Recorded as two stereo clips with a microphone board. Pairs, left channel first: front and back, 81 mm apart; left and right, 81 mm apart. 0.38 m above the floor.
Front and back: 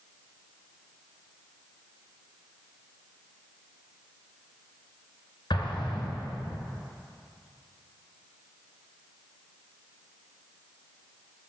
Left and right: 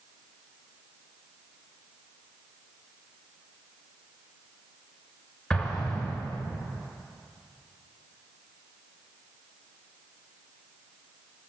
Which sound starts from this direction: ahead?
An explosion, at 5.5 s.